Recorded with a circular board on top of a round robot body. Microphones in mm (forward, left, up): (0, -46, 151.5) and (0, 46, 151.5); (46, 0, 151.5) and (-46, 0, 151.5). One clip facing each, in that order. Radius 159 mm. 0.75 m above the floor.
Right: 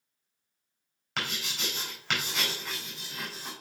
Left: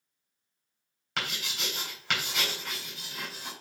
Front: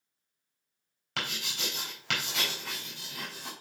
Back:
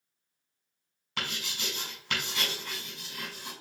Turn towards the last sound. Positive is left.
turn(degrees=0)